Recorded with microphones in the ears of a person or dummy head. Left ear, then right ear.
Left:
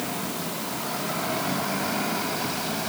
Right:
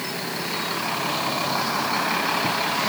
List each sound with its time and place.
Only background noise.